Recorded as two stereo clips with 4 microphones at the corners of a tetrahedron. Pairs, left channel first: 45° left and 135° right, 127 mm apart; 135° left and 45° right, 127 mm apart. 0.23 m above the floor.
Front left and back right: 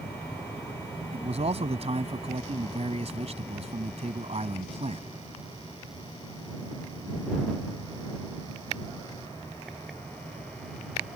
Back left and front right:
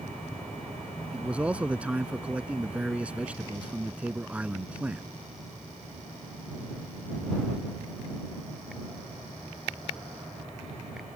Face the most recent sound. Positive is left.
turn(degrees=-125)